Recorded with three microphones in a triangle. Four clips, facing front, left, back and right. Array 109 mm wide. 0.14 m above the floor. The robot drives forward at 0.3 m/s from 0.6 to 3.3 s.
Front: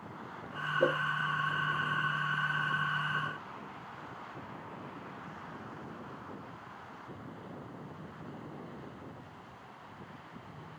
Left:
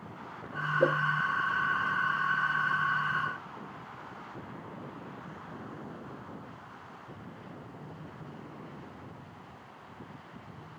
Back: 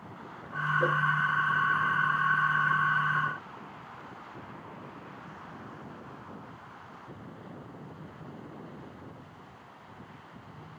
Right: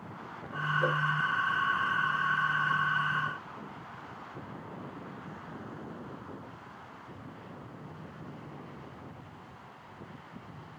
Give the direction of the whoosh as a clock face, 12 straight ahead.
10 o'clock.